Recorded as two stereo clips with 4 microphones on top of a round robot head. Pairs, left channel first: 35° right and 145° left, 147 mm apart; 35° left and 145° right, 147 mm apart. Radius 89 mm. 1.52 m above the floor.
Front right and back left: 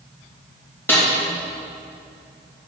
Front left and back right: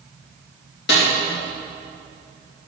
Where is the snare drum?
40° left, 2.5 m.